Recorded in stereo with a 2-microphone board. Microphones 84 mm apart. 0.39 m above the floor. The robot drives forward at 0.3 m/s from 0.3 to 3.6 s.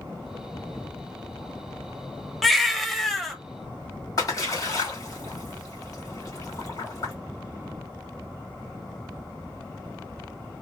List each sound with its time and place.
2.4 s a baby crying: centre (ahead or behind), 0.6 m
4.2 s a splash: 45° left (ahead or behind), 1.8 m